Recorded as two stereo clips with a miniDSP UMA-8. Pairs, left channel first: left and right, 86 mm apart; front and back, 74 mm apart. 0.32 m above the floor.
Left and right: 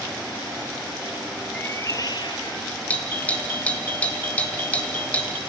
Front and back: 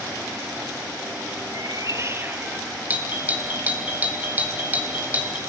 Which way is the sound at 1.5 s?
160° left.